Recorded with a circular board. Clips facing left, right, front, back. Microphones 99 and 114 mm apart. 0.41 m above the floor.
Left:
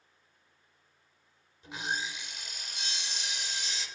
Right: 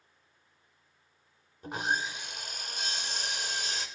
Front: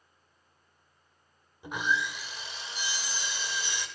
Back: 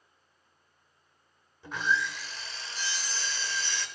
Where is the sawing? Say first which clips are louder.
Right 4 dB, even; 70° right, 0.9 m.